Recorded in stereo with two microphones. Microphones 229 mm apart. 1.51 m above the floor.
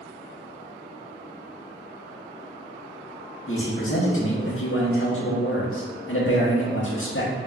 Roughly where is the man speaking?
Left.